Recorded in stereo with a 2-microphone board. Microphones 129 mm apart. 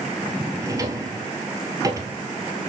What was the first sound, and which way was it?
A drawer, 25° right (ahead or behind).